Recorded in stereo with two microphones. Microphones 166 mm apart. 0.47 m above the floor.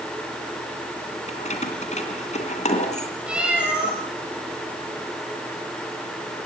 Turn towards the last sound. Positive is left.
turn(degrees=-5)  # may be behind; listen again after turning